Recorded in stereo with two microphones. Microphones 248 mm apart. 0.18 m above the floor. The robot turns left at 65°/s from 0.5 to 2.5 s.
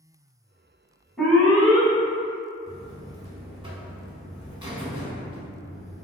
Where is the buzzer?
20° right (ahead or behind), 0.6 m.